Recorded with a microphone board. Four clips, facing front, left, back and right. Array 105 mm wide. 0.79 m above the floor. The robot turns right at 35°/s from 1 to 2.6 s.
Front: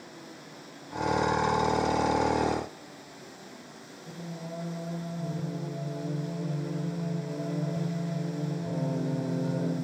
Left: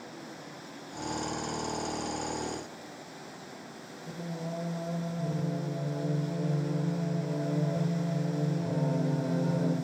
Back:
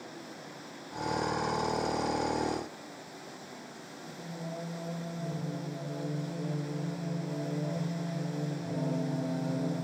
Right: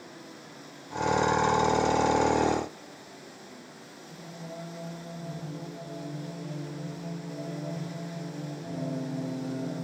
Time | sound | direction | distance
4.1 | singing | 70° left | 3 m